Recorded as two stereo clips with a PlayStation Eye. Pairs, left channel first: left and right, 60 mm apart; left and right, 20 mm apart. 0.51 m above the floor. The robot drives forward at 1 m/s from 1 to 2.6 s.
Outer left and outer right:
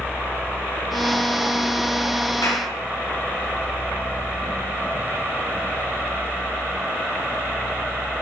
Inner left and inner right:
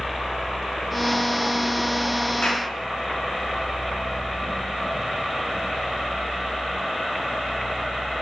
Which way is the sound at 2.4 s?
80° left.